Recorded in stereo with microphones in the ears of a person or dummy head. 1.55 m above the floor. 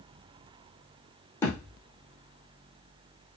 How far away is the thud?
About 4.5 m.